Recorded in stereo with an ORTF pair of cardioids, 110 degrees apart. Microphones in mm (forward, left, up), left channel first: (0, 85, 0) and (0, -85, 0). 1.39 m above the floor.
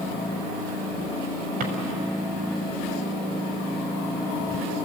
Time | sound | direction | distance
1.6 | a drawer | 60° right | 4.5 m